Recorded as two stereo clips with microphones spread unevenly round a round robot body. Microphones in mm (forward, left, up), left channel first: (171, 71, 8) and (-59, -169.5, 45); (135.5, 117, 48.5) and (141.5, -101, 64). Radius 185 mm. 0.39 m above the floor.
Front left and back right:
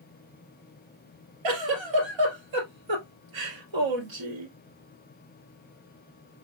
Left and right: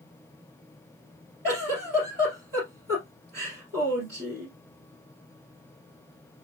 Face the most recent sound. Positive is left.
turn(degrees=-155)